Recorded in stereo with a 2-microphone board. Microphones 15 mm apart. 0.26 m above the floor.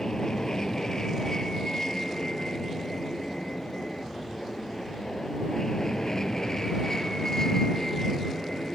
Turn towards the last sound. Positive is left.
turn(degrees=35)  # may be behind; listen again after turning